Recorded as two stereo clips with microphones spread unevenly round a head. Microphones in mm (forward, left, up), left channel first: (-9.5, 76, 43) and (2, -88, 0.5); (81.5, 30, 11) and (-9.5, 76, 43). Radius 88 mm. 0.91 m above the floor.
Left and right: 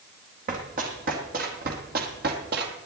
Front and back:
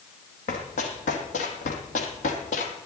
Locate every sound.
0.5 s running footsteps: 35° right, 2.5 m; by 2.7 s 55° right, 1.5 m